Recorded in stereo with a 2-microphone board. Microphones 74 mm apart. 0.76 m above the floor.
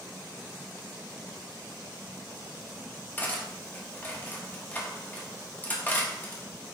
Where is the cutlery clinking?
20° left (ahead or behind), 0.7 m.